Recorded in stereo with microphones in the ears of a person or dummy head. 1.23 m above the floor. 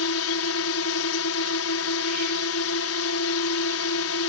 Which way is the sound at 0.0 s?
65° left (ahead or behind).